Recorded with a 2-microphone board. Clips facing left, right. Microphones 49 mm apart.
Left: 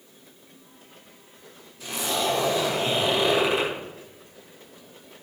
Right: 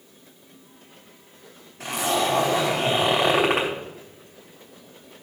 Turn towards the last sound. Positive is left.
turn(degrees=-60)  # may be behind; listen again after turning